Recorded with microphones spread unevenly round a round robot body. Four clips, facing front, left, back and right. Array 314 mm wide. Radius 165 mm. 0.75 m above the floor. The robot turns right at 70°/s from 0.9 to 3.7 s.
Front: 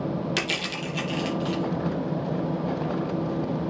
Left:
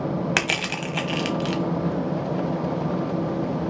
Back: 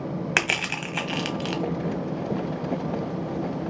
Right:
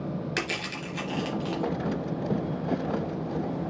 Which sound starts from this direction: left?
Crushing, at 0.4 s.